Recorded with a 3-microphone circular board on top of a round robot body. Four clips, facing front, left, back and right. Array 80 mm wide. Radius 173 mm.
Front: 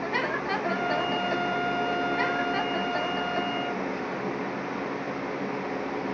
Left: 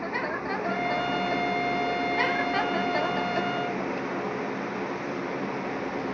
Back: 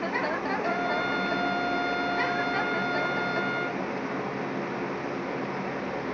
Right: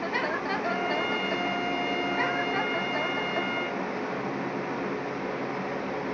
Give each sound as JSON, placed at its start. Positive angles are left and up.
{"t": 0.7, "sound": "a trumpet", "azimuth_deg": -125, "distance_m": 3.0}